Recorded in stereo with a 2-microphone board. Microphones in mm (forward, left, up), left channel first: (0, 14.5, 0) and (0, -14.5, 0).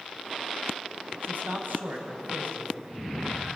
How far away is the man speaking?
About 4 m.